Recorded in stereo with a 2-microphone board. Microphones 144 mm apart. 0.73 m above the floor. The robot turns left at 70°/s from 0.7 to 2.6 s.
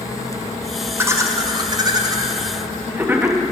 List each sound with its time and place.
1.0 s laughter: 15° right (ahead or behind), 0.6 m